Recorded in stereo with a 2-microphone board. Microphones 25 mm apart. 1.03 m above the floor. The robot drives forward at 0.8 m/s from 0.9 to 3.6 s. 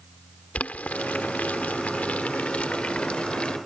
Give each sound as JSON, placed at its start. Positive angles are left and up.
{"t": 0.6, "sound": "boiling", "side_deg": 75}